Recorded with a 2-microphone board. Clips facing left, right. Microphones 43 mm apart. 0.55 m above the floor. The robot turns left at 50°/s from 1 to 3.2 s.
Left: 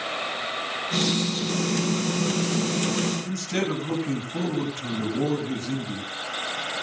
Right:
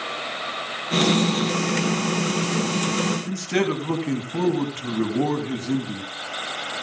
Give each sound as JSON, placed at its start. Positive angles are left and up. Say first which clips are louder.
{"t": 3.2, "sound": "a man speaking", "louder": "right 4 dB", "side_deg": -45, "distance_m": 4.5}